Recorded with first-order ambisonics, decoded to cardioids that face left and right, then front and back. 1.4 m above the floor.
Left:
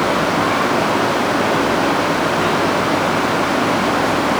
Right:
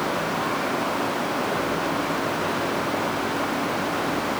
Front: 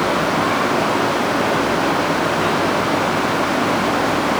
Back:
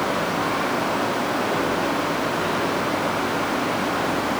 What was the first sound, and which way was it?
Only background noise.